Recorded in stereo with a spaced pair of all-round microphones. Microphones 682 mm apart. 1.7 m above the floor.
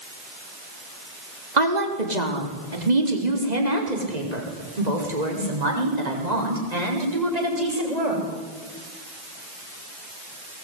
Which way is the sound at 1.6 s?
85° right.